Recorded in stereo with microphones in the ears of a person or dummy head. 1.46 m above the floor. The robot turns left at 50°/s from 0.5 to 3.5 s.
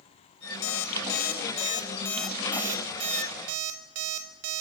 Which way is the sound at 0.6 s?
70° left (ahead or behind).